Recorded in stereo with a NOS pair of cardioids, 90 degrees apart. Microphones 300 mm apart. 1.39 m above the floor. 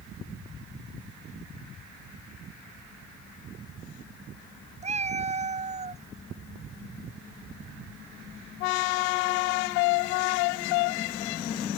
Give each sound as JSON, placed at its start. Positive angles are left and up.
{"t": 4.8, "sound": "a cat meowing", "azimuth_deg": -20}